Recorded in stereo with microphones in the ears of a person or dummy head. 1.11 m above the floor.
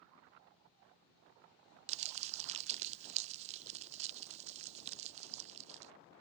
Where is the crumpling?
35° right (ahead or behind).